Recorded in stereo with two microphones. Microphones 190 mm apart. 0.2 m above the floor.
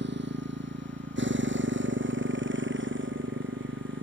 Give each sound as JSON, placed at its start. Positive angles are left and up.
{"t": 0.0, "sound": "a motorcycle", "side_deg": -70}